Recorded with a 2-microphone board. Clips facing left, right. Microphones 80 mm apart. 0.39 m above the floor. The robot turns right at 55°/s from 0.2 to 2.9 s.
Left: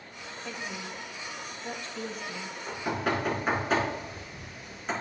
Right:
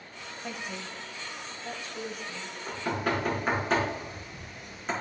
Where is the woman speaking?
60° right (ahead or behind), 1.7 m; by 2.6 s 25° left (ahead or behind), 1.7 m.